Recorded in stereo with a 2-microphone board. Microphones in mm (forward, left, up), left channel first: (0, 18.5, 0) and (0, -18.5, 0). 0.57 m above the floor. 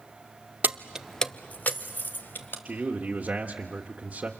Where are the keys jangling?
55° right (ahead or behind), 0.7 m; by 2.5 s 70° left (ahead or behind), 2 m.